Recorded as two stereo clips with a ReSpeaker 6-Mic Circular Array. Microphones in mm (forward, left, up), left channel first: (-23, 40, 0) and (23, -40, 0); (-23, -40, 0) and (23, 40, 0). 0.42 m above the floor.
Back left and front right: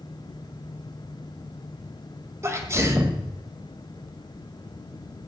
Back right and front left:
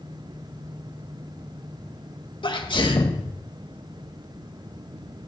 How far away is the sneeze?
About 1.6 m.